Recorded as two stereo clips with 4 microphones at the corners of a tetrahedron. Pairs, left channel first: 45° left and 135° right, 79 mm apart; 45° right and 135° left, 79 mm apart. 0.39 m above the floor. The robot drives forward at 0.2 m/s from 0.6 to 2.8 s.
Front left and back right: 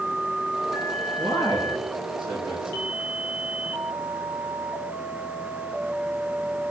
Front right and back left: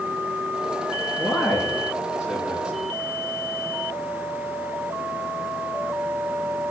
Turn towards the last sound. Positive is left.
turn(degrees=-145)